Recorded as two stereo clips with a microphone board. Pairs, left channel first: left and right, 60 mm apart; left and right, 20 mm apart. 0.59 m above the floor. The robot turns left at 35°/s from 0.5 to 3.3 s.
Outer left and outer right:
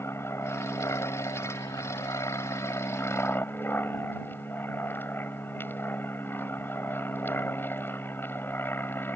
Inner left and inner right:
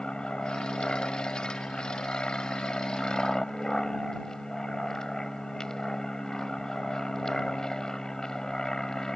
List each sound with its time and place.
0.0 s an aircraft: 135° left; by 9.2 s 35° left